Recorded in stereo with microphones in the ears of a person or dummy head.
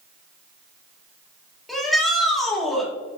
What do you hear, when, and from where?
1.7 s a shout: 5° left (ahead or behind), 2.5 m